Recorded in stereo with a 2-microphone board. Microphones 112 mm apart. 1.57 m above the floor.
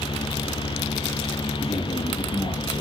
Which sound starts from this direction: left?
A man speaking, at 1.6 s.